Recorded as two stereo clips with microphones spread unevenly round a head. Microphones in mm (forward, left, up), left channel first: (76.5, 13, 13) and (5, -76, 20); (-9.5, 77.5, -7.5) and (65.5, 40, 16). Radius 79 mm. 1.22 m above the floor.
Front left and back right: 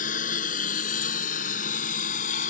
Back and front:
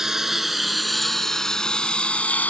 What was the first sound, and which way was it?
A lawn mower, 50° left.